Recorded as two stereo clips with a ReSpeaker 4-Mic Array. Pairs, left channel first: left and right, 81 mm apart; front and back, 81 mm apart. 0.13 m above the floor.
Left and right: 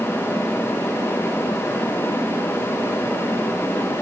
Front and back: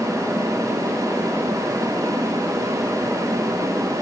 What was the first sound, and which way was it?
Only background noise.